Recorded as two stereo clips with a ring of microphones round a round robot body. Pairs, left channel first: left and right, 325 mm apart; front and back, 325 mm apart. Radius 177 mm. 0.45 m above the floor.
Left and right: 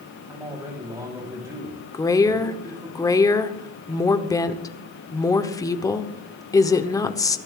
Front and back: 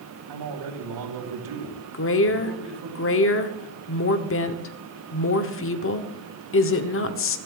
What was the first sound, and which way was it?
A man speaking, 170° right.